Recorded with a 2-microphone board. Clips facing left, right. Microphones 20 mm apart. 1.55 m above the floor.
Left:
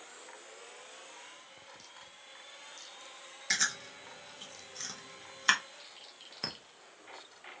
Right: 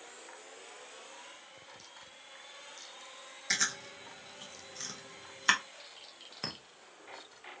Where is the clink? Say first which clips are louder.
Left 1 dB; 5° left (ahead or behind), 0.5 m.